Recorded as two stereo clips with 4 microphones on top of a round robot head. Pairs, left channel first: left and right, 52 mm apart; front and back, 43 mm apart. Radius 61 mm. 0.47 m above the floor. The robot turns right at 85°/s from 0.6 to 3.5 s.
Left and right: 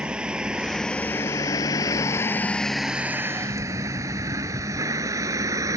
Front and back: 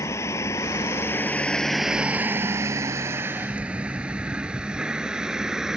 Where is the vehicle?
15° right; by 5.8 s 100° right.